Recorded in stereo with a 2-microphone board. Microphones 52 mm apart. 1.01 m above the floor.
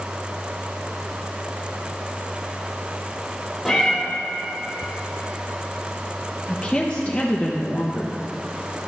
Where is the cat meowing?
Centre (ahead or behind), 2 m.